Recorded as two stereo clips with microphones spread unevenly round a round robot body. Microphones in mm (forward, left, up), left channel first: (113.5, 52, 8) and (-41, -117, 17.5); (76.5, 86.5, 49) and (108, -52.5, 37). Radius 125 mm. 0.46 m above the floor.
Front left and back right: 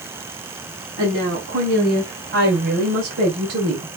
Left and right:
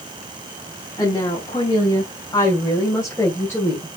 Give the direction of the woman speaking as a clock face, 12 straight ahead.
6 o'clock.